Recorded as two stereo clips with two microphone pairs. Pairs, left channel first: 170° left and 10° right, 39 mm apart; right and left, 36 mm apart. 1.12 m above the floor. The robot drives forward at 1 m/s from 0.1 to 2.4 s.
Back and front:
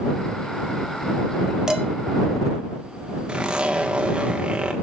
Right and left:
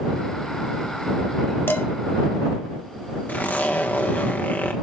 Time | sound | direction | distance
1.7 | dishes clattering | 80° right | 1.0 m
3.3 | a zipper | 75° right | 1.2 m